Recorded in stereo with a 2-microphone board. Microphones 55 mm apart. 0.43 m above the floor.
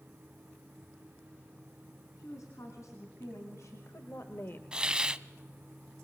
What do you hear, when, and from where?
2.2 s a woman speaking: 75° left (ahead or behind), 4 m; by 4.6 s 40° left (ahead or behind), 1.0 m
4.7 s a hiss: 15° right (ahead or behind), 0.6 m